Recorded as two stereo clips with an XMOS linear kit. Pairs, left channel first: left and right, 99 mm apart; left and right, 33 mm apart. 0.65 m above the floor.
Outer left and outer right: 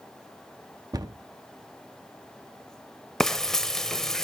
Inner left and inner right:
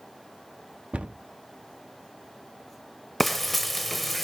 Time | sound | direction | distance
0.9 | a cupboard door | 40° right (ahead or behind) | 0.6 m
3.2 | frying | 5° left (ahead or behind) | 0.6 m